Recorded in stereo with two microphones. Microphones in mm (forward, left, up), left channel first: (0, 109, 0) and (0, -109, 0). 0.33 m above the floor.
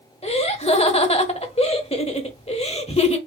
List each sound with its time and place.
0.2 s laughter: 30° left (ahead or behind), 0.9 m